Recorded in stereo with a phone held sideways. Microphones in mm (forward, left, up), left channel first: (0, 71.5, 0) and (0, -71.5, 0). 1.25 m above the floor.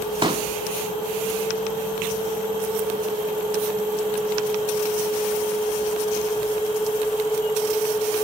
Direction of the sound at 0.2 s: 35° right (ahead or behind).